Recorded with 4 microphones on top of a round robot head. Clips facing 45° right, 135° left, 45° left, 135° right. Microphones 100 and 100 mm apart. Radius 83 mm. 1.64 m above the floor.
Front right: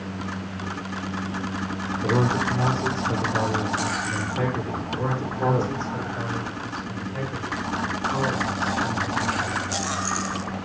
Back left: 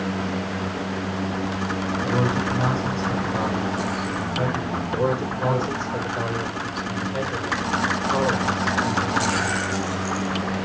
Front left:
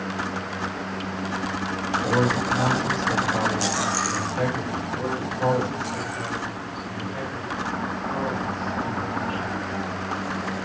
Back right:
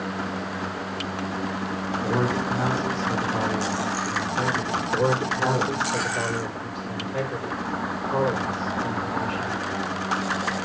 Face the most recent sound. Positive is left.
turn(degrees=-145)